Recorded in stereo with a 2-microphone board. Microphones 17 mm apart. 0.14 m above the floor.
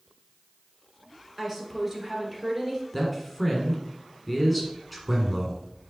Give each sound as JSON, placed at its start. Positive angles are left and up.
{"t": 1.4, "sound": "a woman speaking", "side_deg": -25, "distance_m": 2.0}
{"t": 2.9, "sound": "a man speaking", "side_deg": 0, "distance_m": 1.4}